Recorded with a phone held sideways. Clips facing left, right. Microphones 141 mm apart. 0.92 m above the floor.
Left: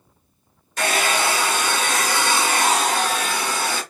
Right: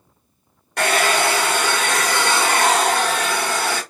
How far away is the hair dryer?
About 1.7 m.